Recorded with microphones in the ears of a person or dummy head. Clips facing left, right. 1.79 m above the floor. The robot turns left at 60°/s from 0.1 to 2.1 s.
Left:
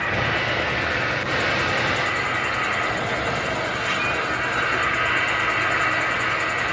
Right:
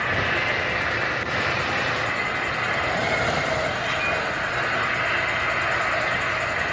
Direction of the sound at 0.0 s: 150° right.